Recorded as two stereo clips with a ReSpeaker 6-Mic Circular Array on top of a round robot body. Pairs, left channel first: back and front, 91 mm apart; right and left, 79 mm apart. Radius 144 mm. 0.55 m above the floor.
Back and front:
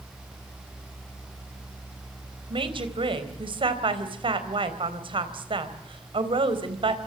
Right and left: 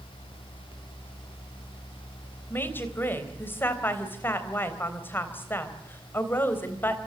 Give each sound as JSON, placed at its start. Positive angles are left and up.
{"t": 2.5, "sound": "a woman speaking", "azimuth_deg": -25, "distance_m": 3.5}